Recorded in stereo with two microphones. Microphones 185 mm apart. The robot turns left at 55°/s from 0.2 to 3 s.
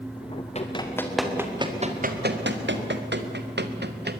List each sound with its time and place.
0.6 s running footsteps: 35° left (ahead or behind), 3.5 m; by 4.2 s 65° right (ahead or behind), 1.6 m